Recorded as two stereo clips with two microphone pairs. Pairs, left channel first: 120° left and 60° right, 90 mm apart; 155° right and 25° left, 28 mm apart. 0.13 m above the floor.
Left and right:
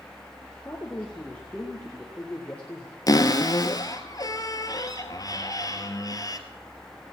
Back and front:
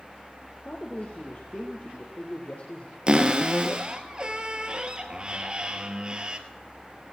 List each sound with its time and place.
0.7 s a man speaking: 170° right, 2.5 m
3.1 s a cupboard door: 80° left, 1.2 m